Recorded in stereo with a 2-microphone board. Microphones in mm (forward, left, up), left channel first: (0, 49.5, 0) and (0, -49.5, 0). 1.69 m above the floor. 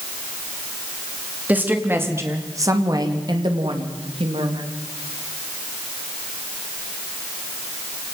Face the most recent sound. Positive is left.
turn(degrees=-75)  # may be behind; listen again after turning